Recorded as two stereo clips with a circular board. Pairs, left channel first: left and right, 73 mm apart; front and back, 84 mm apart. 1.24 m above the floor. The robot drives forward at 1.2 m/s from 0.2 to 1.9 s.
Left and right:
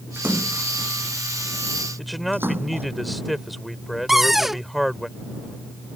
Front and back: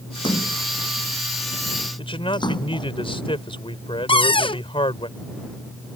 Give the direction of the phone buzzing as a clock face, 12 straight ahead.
No phone buzzing in this recording.